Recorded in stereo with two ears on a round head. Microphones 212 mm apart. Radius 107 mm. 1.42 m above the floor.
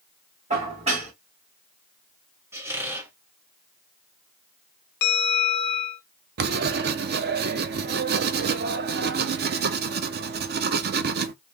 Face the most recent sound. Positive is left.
turn(degrees=-45)  # may be behind; listen again after turning